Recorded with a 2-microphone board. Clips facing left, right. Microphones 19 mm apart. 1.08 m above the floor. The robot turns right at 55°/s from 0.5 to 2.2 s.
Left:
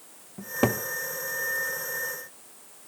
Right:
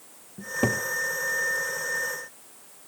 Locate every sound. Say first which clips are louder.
0.4 s a cupboard door: even; 30° left (ahead or behind), 1.2 m; by 0.8 s 15° left (ahead or behind), 1.2 m